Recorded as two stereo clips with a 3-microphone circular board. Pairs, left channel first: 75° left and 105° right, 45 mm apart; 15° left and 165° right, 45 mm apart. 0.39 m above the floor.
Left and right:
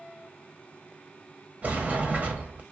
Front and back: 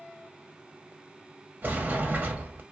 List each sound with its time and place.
1.6 s a sliding door: 145° right, 1.3 m